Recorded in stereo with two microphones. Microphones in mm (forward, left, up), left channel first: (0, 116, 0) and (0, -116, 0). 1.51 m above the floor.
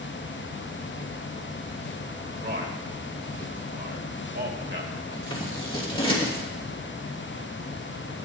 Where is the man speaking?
50° right (ahead or behind), 2 m.